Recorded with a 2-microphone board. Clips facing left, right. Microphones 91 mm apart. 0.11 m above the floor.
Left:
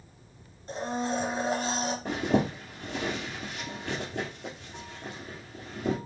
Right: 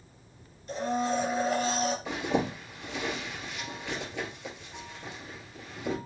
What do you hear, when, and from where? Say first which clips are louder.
0.7 s a blender: right 2 dB; 35° left (ahead or behind), 1.6 m
2.0 s a zipper: left 3 dB; 45° left (ahead or behind), 2 m